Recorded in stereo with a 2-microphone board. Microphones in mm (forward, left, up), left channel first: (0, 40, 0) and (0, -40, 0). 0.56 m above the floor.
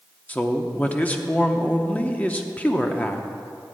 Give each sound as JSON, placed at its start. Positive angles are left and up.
{"t": 0.3, "sound": "a man speaking", "side_deg": 20, "distance_m": 0.7}